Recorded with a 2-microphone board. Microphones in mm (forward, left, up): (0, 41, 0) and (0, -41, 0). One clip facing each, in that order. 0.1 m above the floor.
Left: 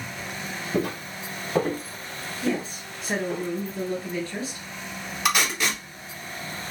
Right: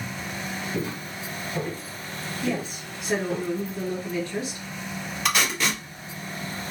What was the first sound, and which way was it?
Footsteps, 60° left (ahead or behind).